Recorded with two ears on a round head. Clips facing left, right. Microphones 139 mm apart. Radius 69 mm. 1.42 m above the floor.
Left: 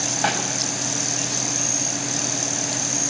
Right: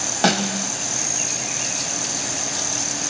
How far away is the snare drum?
About 3 m.